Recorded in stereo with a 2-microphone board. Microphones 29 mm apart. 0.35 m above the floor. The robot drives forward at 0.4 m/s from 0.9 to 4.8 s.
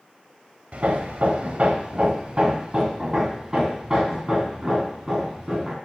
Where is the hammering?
55° right (ahead or behind), 0.8 m; by 5.8 s 20° right (ahead or behind), 1.9 m.